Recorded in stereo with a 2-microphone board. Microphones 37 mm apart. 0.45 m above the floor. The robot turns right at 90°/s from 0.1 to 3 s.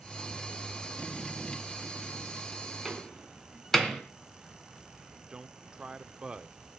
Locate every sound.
2.9 s a door slam: 5° right (ahead or behind), 2.5 m; by 4.0 s 10° left (ahead or behind), 2.5 m
5.1 s a man speaking: 25° right (ahead or behind), 0.8 m